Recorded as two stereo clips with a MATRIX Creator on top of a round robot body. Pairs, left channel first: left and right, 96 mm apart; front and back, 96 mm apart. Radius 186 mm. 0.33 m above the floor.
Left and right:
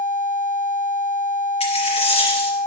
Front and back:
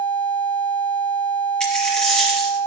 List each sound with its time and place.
1.6 s a dropped coin: 85° left, 3.5 m